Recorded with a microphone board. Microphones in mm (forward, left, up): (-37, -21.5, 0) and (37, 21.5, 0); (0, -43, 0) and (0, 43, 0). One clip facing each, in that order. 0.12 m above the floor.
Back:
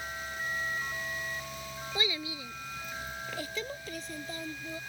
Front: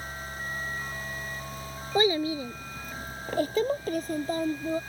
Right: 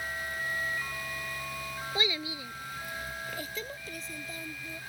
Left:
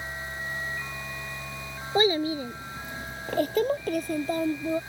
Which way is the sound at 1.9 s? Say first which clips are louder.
Front 12 dB, left 12 dB; 60° left.